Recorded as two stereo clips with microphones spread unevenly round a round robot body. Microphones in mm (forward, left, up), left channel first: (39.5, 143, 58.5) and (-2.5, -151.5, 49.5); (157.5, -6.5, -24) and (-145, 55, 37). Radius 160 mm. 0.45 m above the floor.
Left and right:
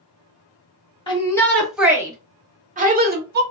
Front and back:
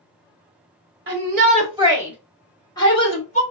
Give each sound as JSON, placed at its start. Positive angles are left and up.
{"t": 1.1, "sound": "a shout", "azimuth_deg": 140, "distance_m": 0.9}